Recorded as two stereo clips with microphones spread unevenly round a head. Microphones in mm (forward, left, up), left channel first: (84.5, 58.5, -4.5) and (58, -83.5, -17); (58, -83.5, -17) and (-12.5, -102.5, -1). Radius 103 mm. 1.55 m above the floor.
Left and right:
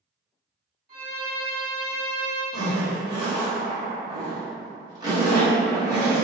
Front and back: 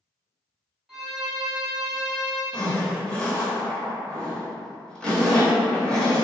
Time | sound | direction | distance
0.9 | a violin | 90° right | 2.0 m
2.5 | a zipper | 80° right | 1.3 m